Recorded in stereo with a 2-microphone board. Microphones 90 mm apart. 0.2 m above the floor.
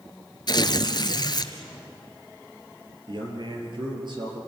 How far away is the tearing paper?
About 1.2 m.